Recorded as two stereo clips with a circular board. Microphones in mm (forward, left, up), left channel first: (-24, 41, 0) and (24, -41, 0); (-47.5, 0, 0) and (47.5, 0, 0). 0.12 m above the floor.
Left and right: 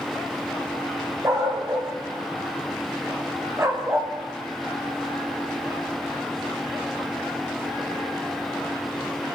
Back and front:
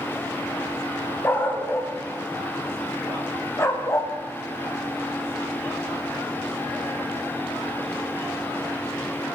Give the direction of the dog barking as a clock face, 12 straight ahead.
4 o'clock.